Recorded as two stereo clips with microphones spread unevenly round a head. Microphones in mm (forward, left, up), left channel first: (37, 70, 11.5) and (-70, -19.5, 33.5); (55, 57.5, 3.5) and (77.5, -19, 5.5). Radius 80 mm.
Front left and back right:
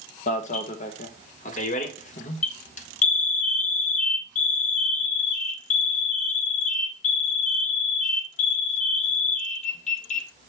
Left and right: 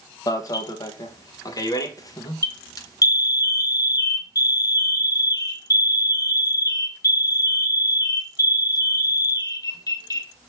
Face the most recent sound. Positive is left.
turn(degrees=75)